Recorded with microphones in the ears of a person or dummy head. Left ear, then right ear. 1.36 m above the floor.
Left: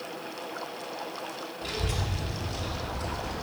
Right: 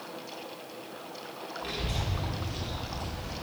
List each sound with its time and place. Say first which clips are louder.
1.6 s a child speaking: left 2 dB; 15° right (ahead or behind), 2 m; by 3.3 s 20° right (ahead or behind), 3.5 m